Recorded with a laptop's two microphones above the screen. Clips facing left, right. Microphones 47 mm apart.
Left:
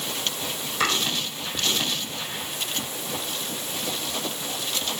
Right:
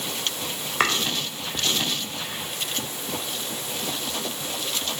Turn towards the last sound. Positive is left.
turn(degrees=-40)  # may be behind; listen again after turning